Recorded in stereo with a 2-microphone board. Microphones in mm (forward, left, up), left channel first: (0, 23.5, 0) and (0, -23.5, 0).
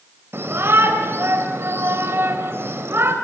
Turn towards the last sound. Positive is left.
turn(degrees=-60)  # may be behind; listen again after turning